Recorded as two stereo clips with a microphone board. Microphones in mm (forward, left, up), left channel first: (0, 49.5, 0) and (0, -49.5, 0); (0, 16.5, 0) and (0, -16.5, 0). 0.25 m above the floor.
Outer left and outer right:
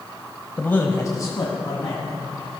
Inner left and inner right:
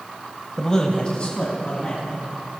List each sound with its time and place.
0.6 s a man speaking: 15° left (ahead or behind), 1.0 m; by 2.2 s 45° left (ahead or behind), 2.5 m